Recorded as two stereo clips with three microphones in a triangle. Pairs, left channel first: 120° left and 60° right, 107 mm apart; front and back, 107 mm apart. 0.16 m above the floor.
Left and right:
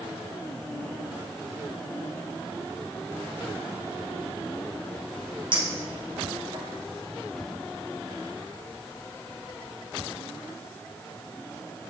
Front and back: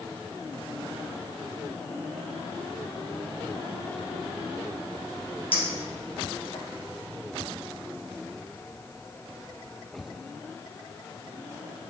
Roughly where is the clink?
Ahead.